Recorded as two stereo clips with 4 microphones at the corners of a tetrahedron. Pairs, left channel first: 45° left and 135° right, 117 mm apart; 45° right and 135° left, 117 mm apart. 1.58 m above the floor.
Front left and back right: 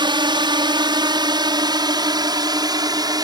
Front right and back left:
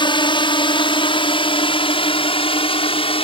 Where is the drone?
90° right; by 3.2 s 80° right.